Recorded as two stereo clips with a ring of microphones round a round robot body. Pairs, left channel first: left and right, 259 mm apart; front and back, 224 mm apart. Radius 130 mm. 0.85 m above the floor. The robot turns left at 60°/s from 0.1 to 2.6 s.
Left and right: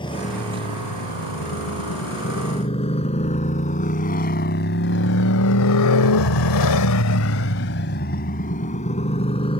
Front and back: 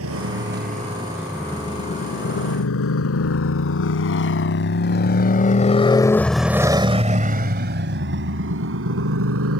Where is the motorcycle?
160° left.